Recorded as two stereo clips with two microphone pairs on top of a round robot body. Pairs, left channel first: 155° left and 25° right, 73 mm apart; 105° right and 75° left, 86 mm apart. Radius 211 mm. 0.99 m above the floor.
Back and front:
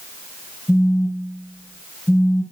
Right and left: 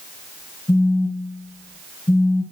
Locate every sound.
0.7 s a phone buzzing: 140° right, 3 m